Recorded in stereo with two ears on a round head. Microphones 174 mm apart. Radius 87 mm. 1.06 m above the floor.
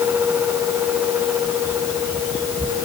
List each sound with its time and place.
Only background noise.